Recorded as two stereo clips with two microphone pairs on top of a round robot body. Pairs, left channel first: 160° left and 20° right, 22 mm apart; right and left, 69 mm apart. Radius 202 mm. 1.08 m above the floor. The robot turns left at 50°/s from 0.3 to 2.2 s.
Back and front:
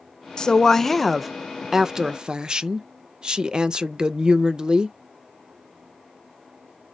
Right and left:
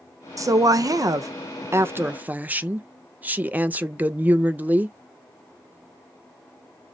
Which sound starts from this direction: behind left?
A woman speaking, at 0.4 s.